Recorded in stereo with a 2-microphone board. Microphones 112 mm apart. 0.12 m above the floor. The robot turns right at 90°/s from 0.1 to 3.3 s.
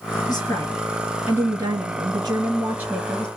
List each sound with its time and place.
0.3 s a woman speaking: 110° left, 2 m; by 3.3 s 15° left, 2 m